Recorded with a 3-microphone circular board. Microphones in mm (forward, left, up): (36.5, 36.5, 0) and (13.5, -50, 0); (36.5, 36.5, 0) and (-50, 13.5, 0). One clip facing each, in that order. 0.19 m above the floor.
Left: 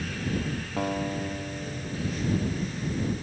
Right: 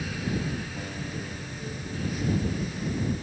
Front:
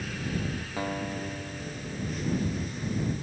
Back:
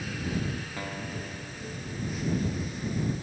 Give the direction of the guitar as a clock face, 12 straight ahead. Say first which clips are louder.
Left 7 dB, front 4 dB; 9 o'clock.